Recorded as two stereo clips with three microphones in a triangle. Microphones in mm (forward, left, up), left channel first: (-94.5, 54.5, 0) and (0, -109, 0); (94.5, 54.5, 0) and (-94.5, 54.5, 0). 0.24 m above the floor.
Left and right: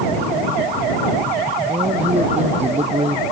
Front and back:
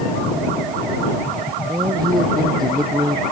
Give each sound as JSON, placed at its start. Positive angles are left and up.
{"t": 1.7, "sound": "a man speaking", "azimuth_deg": -115}